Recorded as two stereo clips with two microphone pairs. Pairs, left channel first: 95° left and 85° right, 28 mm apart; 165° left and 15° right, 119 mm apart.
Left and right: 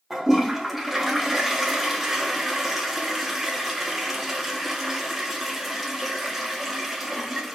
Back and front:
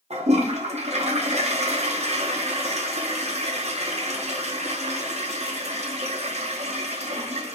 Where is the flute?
I don't hear a flute.